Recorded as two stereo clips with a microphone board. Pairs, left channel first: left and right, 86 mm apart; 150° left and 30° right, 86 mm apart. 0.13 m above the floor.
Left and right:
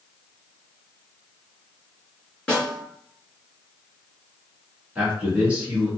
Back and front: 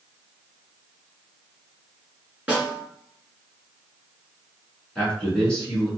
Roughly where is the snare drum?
Ahead.